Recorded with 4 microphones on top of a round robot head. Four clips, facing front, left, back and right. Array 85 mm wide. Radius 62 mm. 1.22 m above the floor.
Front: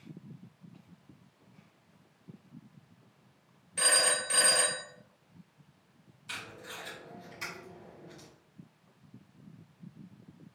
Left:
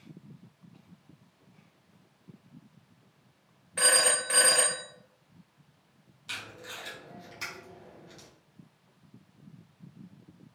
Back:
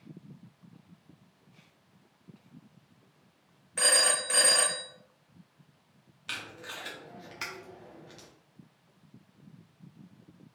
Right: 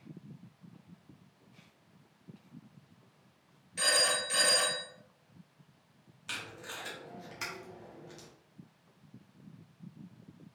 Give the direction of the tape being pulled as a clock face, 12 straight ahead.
5 o'clock.